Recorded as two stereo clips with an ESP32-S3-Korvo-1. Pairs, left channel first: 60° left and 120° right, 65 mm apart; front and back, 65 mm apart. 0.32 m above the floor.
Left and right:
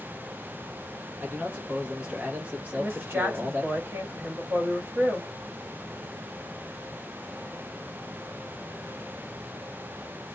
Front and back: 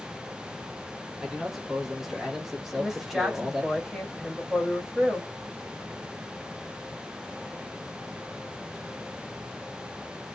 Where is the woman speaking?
95° right, 1.7 m.